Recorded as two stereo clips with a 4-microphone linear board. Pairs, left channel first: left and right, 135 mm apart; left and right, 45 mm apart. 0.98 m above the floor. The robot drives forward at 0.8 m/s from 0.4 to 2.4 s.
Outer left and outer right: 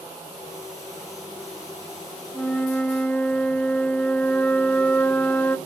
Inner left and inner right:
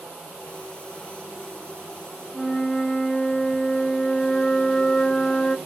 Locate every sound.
2.3 s a flute: 10° left (ahead or behind), 0.7 m